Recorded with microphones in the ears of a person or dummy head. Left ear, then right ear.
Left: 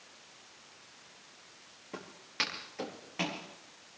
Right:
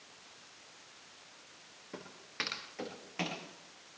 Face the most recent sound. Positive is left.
turn(degrees=-10)  # may be behind; listen again after turning